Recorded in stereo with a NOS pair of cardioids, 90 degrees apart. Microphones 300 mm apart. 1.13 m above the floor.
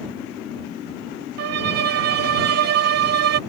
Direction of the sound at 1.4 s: 50° right.